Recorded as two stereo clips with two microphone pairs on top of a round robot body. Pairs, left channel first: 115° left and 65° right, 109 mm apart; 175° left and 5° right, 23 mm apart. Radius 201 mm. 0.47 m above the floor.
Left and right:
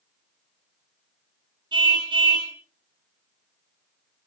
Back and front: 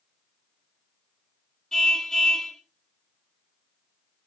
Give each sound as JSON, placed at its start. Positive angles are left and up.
{"t": 1.7, "sound": "a car horn", "azimuth_deg": -115, "distance_m": 3.5}